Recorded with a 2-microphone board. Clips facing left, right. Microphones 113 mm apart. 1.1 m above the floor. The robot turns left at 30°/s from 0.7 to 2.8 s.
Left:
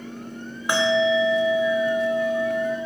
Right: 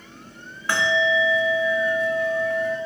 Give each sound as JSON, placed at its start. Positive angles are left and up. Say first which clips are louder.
{"t": 0.7, "sound": "a bell", "louder": "left 2 dB", "side_deg": 15, "distance_m": 0.6}